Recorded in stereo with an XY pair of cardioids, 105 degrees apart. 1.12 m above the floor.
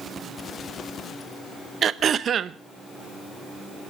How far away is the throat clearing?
About 0.8 m.